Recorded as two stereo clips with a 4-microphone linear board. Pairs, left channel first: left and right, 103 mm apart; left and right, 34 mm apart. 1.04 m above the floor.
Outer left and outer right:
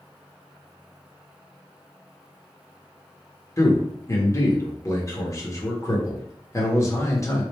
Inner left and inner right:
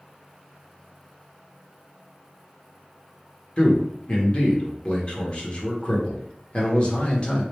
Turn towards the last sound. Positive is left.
turn(degrees=30)  # may be behind; listen again after turning